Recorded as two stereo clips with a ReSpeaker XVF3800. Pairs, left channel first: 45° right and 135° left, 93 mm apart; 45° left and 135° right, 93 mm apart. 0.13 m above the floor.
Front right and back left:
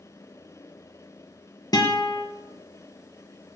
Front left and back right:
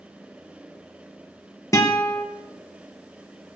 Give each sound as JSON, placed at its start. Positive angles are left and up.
{"t": 1.7, "sound": "a guitar", "azimuth_deg": -10, "distance_m": 3.5}